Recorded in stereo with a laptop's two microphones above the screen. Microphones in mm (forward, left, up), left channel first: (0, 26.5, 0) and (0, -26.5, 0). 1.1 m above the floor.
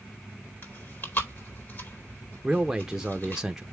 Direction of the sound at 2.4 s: 10° right (ahead or behind).